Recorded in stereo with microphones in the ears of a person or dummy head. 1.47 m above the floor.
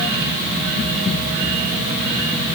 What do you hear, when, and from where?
Only background noise.